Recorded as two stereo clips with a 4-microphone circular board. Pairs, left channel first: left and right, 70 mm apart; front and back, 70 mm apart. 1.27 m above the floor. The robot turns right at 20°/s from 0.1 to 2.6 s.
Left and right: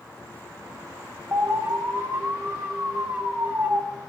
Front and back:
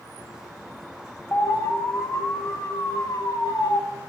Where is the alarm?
50° right, 1.8 m; by 3.8 s 20° right, 1.8 m.